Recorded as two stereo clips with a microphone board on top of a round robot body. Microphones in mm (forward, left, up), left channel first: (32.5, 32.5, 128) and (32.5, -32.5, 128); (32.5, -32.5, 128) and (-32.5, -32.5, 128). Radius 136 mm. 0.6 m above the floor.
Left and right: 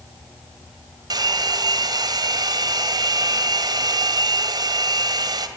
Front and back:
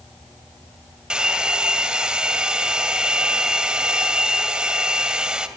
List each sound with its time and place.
1.1 s a hair dryer: 100° right, 2 m